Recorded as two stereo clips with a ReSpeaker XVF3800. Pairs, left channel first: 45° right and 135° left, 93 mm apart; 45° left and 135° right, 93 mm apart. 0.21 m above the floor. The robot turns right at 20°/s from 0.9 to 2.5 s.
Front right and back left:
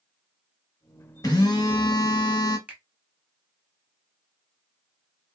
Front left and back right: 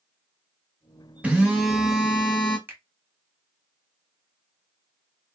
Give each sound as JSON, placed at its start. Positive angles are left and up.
{"t": 1.2, "sound": "a phone buzzing", "azimuth_deg": -65, "distance_m": 0.9}
{"t": 2.7, "sound": "a finger snap", "azimuth_deg": -165, "distance_m": 0.8}